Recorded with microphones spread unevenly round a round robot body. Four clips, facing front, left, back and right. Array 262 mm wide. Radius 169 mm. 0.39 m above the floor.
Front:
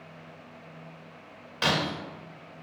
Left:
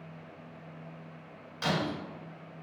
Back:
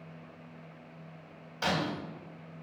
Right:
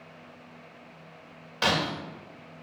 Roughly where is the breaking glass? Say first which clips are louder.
Right 4 dB, front 3 dB; ahead right.